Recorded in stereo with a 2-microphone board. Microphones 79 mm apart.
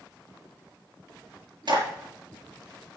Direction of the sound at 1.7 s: 65° right (ahead or behind).